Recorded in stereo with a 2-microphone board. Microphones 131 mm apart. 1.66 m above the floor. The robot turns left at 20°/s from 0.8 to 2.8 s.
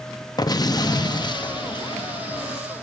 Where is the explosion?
125° left, 0.5 m; by 2.6 s 90° left, 0.5 m.